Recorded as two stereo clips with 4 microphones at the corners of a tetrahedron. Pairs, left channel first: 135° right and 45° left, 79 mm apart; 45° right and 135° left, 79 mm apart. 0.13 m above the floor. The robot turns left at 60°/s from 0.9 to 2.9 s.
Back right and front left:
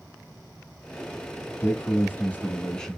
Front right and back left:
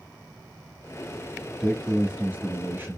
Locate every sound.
1.6 s a man speaking: 135° right, 1.3 m; by 3.0 s 145° left, 1.3 m